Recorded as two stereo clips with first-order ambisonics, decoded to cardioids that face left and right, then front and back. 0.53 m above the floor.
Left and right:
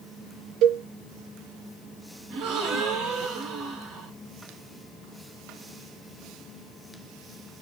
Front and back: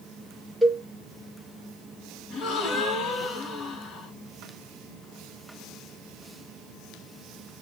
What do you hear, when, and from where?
0.6 s a cowbell: 95° right, 0.8 m
2.3 s a gasp: 55° right, 0.9 m